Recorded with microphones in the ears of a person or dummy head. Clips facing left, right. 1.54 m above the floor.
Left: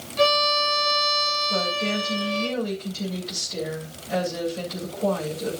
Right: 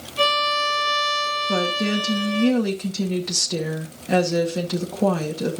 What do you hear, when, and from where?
0.2 s a violin: 40° right (ahead or behind), 9 m
1.5 s a woman speaking: 85° right, 2.5 m